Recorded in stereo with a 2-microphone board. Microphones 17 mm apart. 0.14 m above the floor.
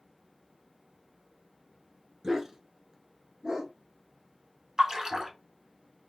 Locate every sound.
2.2 s a dog barking: 20° right (ahead or behind), 0.6 m; by 3.7 s 35° right (ahead or behind), 1.0 m
4.8 s a splash: 35° right (ahead or behind), 0.8 m